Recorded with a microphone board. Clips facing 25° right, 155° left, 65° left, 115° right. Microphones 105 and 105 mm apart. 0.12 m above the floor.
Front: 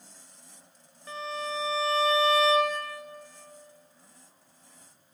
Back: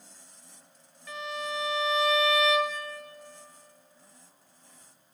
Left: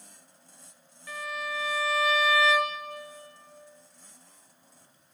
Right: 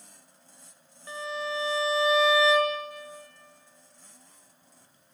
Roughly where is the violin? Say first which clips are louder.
Front 1 dB, right 2 dB; ahead right.